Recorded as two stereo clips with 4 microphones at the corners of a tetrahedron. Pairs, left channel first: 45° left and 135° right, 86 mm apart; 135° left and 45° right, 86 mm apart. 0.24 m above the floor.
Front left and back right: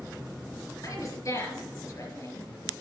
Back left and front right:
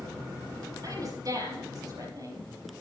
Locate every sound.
0.8 s a woman speaking: 5° right, 5 m